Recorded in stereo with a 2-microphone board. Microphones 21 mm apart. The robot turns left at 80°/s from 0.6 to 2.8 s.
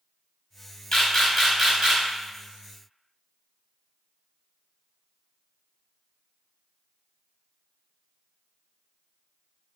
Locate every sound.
0.9 s a camera shutter: 45° left (ahead or behind), 1.6 m; by 2.0 s 40° right (ahead or behind), 1.6 m